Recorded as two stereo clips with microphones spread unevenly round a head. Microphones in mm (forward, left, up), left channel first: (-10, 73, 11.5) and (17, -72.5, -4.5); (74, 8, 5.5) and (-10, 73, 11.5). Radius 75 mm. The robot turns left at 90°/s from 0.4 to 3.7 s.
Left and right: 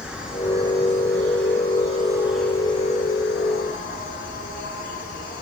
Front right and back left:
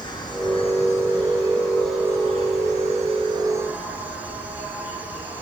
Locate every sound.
0.0 s an insect: 5° left, 6.5 m; by 5.4 s 70° left, 6.5 m